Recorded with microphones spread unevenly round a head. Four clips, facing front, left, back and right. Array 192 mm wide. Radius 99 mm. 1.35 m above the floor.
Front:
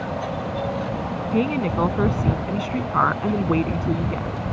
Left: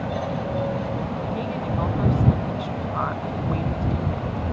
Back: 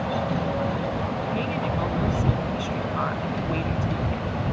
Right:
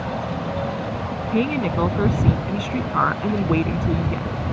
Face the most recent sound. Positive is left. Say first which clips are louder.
# right 10 dB, front 5 dB
turn(degrees=-50)